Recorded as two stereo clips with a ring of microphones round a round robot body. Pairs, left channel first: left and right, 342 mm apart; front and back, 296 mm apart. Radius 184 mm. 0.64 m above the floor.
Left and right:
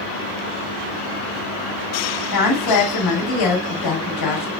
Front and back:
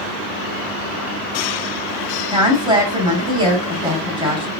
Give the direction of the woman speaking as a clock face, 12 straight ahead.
8 o'clock.